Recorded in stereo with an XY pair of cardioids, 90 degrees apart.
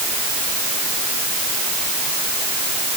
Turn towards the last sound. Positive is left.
No sound to turn to.